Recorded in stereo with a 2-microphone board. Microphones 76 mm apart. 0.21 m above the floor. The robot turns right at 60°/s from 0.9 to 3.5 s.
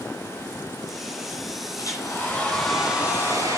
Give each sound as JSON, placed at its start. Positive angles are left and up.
{"t": 1.8, "sound": "a hair dryer", "azimuth_deg": 125, "distance_m": 3.5}